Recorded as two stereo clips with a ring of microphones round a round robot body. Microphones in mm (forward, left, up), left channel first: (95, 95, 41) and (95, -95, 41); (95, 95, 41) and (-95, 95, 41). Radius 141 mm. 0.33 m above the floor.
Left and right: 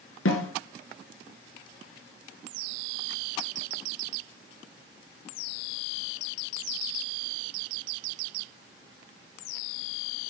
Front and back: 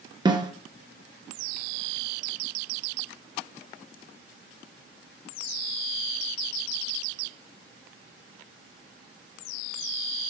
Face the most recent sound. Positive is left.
turn(degrees=110)